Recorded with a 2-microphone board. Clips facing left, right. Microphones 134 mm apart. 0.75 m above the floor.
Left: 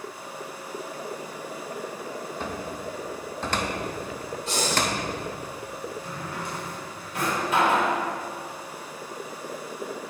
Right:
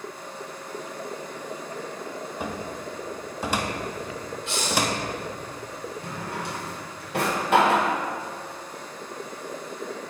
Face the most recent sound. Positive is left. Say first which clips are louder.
# right 1 dB
turn(degrees=-70)  # may be behind; listen again after turning